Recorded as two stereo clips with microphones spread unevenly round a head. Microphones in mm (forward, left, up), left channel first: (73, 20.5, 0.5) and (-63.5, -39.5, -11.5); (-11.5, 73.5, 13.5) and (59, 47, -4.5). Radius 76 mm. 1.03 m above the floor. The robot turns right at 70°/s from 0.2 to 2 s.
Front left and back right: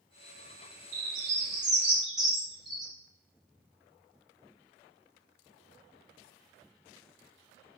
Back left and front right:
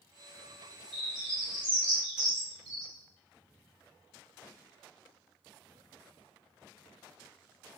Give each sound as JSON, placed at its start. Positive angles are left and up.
{"t": 0.9, "sound": "a bird", "azimuth_deg": -145, "distance_m": 0.8}